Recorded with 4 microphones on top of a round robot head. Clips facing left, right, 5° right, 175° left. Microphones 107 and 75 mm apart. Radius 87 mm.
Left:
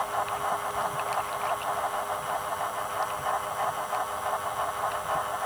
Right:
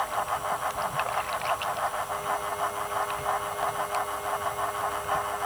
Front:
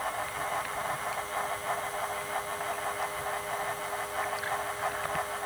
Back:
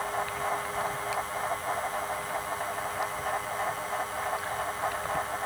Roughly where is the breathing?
I don't hear breathing.